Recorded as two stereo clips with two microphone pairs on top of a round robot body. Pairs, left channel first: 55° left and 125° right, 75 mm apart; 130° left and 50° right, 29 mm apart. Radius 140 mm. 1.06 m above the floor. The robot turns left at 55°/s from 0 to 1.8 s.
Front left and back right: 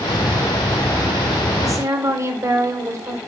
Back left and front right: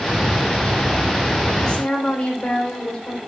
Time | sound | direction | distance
1.6 | a woman speaking | 165° right | 4 m